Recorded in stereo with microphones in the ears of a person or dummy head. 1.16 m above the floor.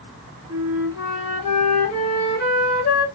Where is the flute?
45° left (ahead or behind), 2 m.